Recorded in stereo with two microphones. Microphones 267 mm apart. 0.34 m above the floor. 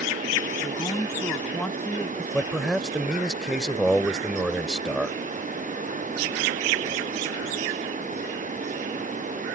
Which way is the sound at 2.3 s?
5° right (ahead or behind).